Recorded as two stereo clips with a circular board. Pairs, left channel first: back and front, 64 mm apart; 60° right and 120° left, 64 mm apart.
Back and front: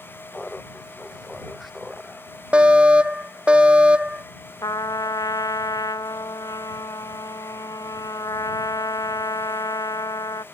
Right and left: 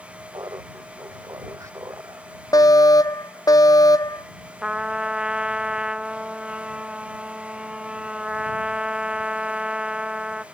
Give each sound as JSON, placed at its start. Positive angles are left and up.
{"t": 0.3, "sound": "laughter", "azimuth_deg": 110}
{"t": 2.5, "sound": "a fire alarm", "azimuth_deg": -75}
{"t": 4.6, "sound": "a trumpet", "azimuth_deg": -165}